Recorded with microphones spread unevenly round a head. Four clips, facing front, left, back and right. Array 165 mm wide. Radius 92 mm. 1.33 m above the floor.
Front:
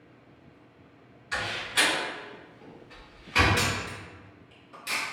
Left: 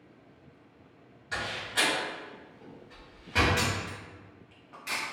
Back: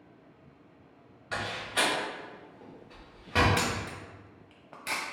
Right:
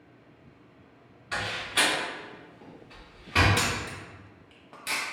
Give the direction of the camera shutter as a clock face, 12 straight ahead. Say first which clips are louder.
Right 1 dB, front 1 dB; 5 o'clock.